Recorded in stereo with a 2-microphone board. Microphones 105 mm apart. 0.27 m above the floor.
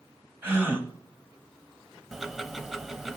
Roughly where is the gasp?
Right.